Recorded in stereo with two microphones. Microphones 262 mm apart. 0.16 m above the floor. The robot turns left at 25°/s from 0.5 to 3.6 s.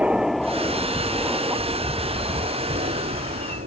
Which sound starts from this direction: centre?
An aircraft, at 0.0 s.